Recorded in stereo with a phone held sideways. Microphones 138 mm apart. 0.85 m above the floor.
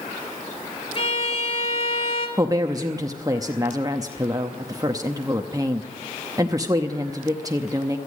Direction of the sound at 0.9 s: 40° left (ahead or behind).